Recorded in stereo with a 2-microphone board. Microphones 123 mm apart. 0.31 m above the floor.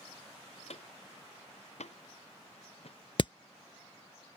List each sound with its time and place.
0.7 s footsteps: 65° left (ahead or behind); by 3.0 s 60° left (ahead or behind)
3.2 s hammering: 50° left (ahead or behind)